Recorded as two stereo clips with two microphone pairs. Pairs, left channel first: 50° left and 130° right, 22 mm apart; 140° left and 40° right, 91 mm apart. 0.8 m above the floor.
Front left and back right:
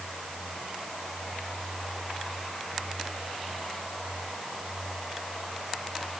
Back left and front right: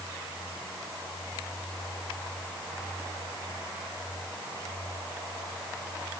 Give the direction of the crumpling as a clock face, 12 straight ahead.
No crumpling in this recording.